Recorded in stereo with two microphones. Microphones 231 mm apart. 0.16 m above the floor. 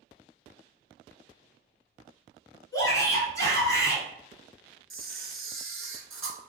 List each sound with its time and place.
2.7 s a shout: 15° left (ahead or behind), 1.5 m
4.9 s a camera shutter: 60° right (ahead or behind), 0.6 m